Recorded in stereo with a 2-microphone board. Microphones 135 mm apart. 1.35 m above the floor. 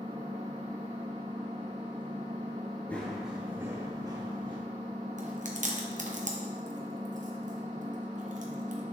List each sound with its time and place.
0.0 s an engine running: 35° right (ahead or behind), 1.4 m
2.9 s running footsteps: 10° left (ahead or behind), 1.4 m; by 4.6 s 35° right (ahead or behind), 2.5 m
5.2 s chewing: 65° right (ahead or behind), 0.9 m